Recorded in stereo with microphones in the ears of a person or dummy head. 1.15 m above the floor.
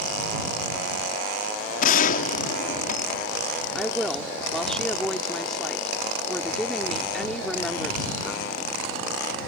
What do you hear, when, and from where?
1.8 s a gunshot: 50° left (ahead or behind)
3.8 s a woman speaking: centre (ahead or behind)